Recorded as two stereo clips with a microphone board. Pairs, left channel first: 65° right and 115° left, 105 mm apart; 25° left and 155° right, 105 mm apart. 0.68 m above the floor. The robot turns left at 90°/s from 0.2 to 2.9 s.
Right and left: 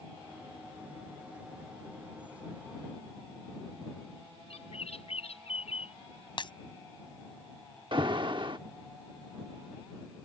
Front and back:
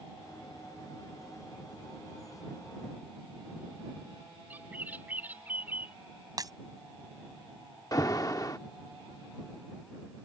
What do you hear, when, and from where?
4.5 s a bird: 85° right
6.4 s breaking glass: 105° right
7.9 s an alarm: 75° left